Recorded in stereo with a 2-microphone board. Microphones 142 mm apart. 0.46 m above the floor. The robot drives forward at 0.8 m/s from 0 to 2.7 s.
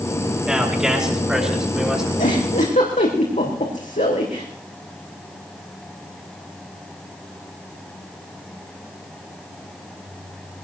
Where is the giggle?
65° left (ahead or behind), 4.5 m; by 4.5 s 60° left (ahead or behind), 4.5 m.